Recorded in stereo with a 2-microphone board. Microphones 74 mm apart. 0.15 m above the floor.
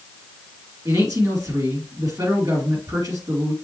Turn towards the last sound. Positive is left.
turn(degrees=-50)  # may be behind; listen again after turning